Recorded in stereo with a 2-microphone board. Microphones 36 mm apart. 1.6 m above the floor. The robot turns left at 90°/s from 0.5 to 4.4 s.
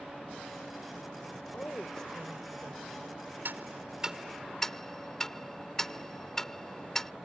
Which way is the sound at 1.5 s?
65° left.